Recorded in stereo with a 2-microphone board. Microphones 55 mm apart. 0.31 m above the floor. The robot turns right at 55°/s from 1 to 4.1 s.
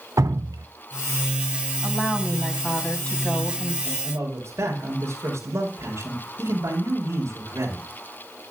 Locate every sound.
0.2 s dripping: 80° right, 0.6 m
1.8 s a woman speaking: 45° right, 2 m; by 3.8 s 60° left, 2 m
3.9 s a man speaking: 70° right (ahead or behind), 5.5 m; by 7.9 s 60° right (ahead or behind), 5.5 m